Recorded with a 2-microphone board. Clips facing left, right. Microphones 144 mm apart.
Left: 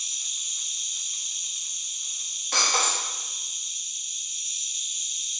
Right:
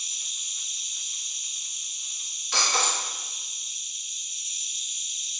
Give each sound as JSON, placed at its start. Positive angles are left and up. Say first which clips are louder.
{"t": 0.0, "sound": "an insect", "louder": "even", "side_deg": 80, "distance_m": 2.5}
{"t": 2.5, "sound": "breaking glass", "louder": "even", "side_deg": 50, "distance_m": 1.6}